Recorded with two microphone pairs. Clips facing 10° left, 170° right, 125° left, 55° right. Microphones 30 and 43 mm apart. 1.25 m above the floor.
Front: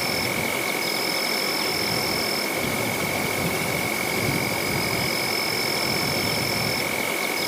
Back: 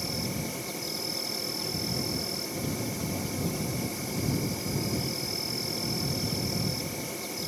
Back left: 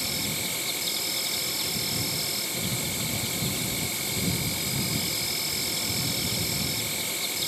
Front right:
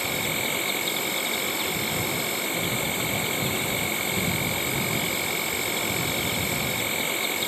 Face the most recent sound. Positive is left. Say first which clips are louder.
# front 9 dB, front right 5 dB
turn(degrees=5)